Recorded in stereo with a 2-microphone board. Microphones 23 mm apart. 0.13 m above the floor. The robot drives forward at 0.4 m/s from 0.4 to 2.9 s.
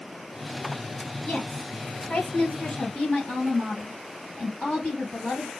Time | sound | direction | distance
1.2 | a woman speaking | 60° left (ahead or behind) | 3 m